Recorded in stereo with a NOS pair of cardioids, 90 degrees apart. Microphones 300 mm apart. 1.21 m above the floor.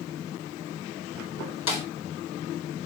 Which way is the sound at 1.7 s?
60° left.